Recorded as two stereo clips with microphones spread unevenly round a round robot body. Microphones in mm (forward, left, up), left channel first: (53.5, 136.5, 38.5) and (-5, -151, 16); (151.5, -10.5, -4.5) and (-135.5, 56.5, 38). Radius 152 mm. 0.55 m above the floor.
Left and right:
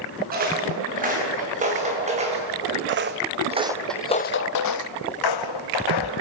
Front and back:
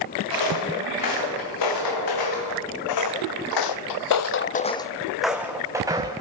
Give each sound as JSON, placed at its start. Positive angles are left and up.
{"t": 0.3, "sound": "footsteps", "azimuth_deg": -40, "distance_m": 8.5}
{"t": 2.9, "sound": "footsteps", "azimuth_deg": -50, "distance_m": 1.9}